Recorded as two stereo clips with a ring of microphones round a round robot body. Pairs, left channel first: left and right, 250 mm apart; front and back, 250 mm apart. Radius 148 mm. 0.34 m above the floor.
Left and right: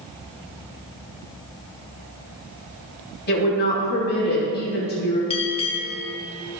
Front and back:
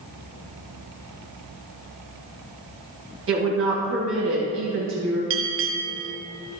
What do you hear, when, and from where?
3.3 s a woman speaking: 140° left, 2.5 m
5.3 s a bell: 155° left, 0.9 m